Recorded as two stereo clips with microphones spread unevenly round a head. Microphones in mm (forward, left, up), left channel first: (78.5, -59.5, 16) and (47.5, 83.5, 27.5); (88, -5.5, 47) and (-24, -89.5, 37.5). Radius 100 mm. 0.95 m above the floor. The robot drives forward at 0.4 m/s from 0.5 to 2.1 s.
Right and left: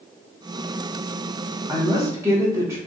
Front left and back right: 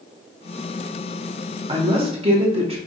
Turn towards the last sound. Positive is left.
turn(degrees=175)